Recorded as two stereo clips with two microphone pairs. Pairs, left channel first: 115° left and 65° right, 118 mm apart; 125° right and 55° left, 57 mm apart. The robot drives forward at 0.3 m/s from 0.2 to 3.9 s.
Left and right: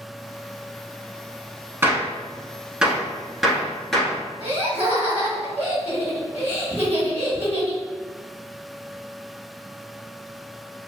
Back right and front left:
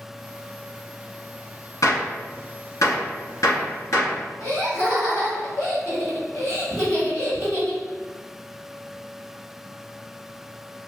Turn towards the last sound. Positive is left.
turn(degrees=-125)